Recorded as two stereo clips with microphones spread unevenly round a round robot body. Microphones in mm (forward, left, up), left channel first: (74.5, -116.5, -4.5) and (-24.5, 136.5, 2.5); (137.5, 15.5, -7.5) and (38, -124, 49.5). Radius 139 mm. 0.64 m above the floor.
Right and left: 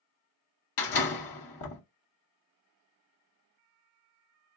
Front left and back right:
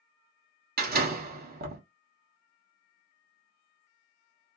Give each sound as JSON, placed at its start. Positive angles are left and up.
{"t": 0.8, "sound": "a door slam", "azimuth_deg": -90, "distance_m": 1.0}